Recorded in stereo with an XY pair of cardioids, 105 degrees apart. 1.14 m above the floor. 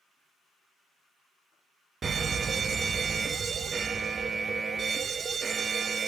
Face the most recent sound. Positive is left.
turn(degrees=-40)